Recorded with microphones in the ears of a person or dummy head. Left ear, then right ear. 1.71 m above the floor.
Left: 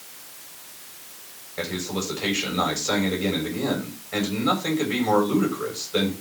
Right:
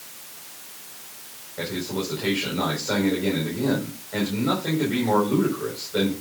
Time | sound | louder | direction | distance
1.6 | a man speaking | even | 75° left (ahead or behind) | 7.5 m